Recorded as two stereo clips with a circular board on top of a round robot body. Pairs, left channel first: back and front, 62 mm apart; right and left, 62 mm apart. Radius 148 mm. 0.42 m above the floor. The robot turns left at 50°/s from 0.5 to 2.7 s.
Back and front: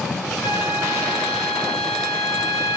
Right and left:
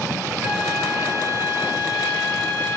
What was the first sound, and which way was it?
A flute, straight behind.